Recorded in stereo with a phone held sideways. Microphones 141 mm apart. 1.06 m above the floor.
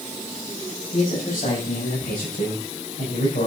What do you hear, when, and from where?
0.9 s a man speaking: 75° left (ahead or behind), 6.5 m; by 3.5 s 85° left, 5.5 m